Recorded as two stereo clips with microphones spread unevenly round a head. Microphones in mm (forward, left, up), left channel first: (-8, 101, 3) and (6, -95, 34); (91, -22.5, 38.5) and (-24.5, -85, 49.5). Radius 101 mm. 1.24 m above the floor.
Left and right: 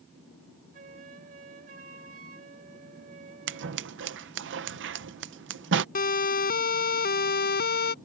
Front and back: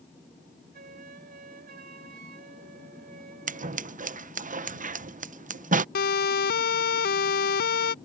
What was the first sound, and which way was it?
A flute, 140° right.